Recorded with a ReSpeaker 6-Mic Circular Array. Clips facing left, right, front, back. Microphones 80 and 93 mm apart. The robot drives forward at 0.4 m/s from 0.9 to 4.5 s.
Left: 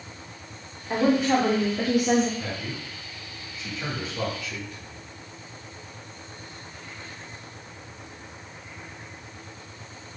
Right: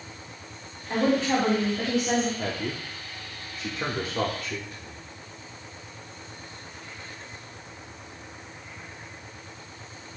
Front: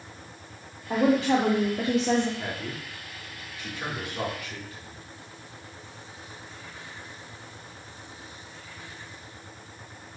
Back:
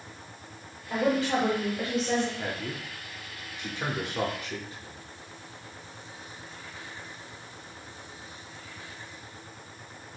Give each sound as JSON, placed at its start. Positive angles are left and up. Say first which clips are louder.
{"t": 0.9, "sound": "a woman speaking", "louder": "left 2 dB, front 4 dB", "azimuth_deg": 10, "distance_m": 2.0}
{"t": 2.4, "sound": "a man speaking", "louder": "right 3 dB, even", "azimuth_deg": -95, "distance_m": 1.5}